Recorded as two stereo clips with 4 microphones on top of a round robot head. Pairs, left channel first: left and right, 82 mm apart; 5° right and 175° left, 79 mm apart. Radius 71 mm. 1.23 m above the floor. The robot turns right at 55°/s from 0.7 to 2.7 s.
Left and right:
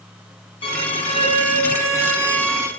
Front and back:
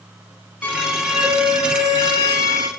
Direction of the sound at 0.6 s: 65° left.